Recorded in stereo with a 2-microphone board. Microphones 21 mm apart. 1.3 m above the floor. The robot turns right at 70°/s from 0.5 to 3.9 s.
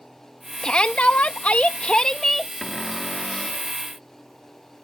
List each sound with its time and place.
0.6 s a shout: 45° left; by 2.5 s 175° left
2.6 s a cupboard door: straight ahead; by 3.7 s 75° left